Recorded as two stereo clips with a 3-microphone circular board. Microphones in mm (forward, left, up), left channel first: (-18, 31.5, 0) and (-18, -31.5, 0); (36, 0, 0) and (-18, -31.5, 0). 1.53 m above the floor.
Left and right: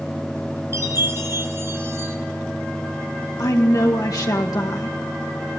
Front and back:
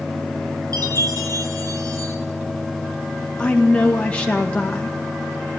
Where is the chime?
135° right, 3 m.